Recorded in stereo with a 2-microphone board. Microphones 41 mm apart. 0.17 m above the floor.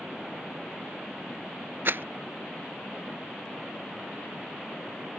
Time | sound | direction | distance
1.9 | a rattle | 60° right (ahead or behind) | ?